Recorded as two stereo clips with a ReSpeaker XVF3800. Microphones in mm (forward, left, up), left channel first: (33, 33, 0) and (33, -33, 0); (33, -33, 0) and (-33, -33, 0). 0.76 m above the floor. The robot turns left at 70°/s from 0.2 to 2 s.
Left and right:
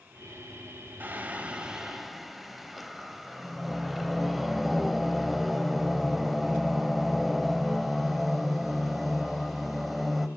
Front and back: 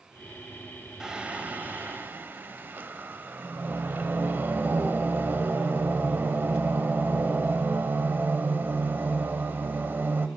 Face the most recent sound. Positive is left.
turn(degrees=-175)